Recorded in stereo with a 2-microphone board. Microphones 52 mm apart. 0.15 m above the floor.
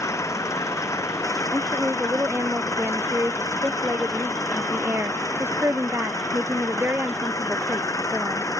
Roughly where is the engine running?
Left.